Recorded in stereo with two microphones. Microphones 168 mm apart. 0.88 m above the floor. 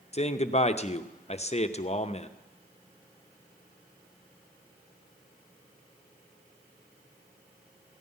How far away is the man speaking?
About 0.6 m.